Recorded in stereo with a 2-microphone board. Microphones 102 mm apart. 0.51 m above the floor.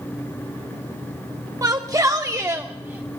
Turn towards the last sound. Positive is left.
turn(degrees=-15)  # may be behind; listen again after turning